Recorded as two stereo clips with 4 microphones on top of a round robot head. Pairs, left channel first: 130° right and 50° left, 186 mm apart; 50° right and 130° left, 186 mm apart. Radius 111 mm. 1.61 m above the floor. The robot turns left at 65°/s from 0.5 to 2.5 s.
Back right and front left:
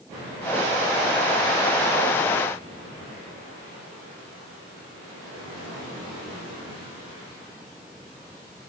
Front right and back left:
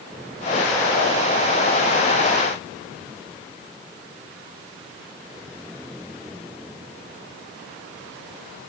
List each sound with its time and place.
Only background noise.